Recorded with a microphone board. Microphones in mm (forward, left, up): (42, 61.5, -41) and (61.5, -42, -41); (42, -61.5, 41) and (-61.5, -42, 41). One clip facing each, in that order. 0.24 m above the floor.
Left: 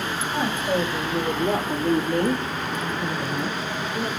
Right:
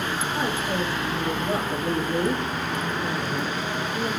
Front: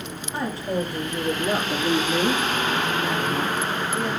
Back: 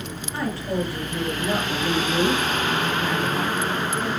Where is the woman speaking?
60° left, 6.5 m; by 4.1 s 70° left, 4.5 m.